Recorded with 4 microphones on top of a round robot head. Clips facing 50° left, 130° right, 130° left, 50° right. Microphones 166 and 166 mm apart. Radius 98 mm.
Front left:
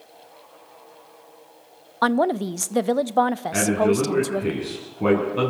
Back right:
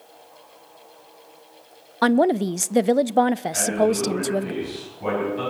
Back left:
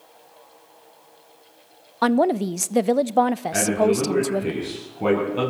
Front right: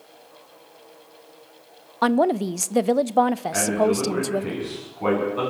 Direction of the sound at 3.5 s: 70° left.